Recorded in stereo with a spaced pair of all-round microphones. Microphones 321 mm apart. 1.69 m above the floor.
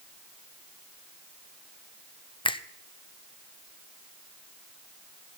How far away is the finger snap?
About 0.6 m.